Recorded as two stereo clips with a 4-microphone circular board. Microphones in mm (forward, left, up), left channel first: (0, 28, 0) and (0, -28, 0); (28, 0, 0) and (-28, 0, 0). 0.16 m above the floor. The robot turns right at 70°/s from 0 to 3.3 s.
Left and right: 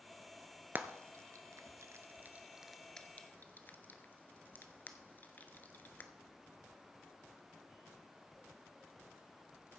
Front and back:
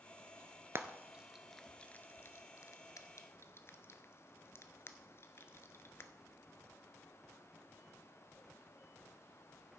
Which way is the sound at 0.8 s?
140° right.